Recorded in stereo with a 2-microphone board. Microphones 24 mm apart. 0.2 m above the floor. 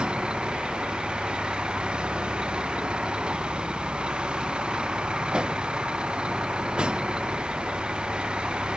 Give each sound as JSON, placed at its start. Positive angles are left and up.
{"t": 0.0, "sound": "a vehicle", "side_deg": -45}